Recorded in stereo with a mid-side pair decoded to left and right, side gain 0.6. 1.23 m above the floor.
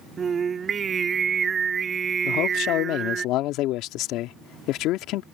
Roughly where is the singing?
Ahead right.